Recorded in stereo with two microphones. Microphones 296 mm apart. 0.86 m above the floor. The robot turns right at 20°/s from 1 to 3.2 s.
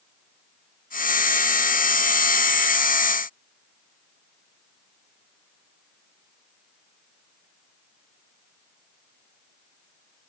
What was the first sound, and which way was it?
Only background noise.